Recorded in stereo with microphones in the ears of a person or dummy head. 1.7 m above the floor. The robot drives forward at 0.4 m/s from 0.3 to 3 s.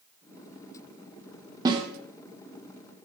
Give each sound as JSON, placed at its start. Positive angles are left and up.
{"t": 1.6, "sound": "a snare drum", "side_deg": -25, "distance_m": 0.8}